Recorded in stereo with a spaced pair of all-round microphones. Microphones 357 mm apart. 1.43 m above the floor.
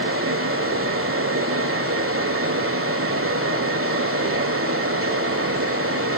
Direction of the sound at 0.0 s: 35° right (ahead or behind).